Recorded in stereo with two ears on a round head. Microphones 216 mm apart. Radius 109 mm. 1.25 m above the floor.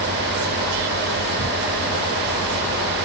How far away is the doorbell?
I don't hear a doorbell.